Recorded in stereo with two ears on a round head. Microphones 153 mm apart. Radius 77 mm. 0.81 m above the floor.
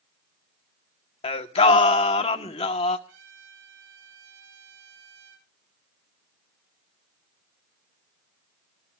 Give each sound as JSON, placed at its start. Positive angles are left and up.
{"t": 1.2, "sound": "singing", "side_deg": 35, "distance_m": 1.2}
{"t": 3.1, "sound": "a trumpet", "side_deg": -85, "distance_m": 8.5}